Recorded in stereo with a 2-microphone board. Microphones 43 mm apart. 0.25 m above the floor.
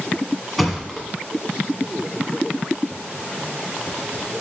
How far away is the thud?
About 1.1 m.